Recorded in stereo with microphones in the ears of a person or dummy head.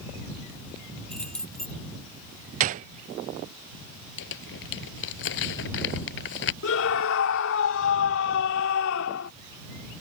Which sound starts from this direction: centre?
Keys jangling, at 1.1 s.